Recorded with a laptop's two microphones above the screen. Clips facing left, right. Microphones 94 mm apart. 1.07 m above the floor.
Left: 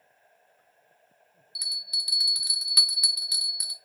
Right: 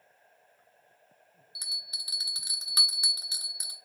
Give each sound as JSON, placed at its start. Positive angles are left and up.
{"t": 1.6, "sound": "a bell", "side_deg": -30, "distance_m": 0.9}